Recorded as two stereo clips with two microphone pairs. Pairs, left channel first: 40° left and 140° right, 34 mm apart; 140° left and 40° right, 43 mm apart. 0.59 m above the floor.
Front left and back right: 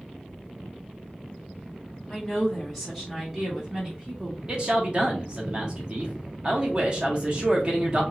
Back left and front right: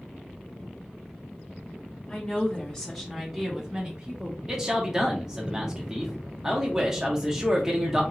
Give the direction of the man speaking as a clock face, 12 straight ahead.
4 o'clock.